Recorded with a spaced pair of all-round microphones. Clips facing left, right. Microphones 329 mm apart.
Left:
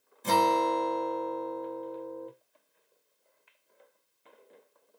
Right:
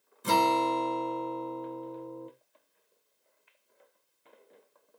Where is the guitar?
15° right (ahead or behind), 0.9 m.